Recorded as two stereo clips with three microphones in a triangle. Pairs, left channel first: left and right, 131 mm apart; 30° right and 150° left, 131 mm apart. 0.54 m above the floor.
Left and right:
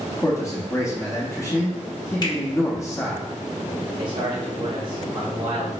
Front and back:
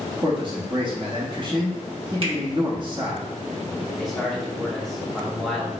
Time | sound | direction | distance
0.2 | a man speaking | 140° left | 0.8 m
2.2 | a finger snap | 125° left | 1.0 m
4.0 | a man speaking | 120° right | 0.8 m